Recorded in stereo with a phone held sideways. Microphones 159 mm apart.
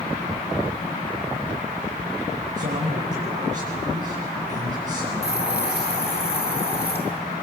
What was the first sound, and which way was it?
A man speaking, 55° right (ahead or behind).